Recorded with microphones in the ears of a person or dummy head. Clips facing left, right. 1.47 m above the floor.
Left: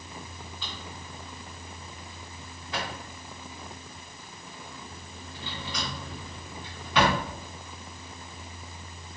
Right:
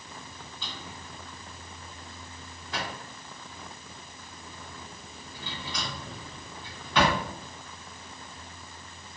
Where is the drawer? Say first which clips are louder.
Even; 10° left (ahead or behind), 1.2 m.